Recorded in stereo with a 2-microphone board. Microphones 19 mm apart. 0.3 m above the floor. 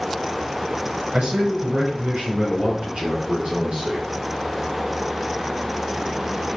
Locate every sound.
1.1 s a man speaking: 70° right (ahead or behind), 4.5 m; by 4.1 s 50° right (ahead or behind), 4.5 m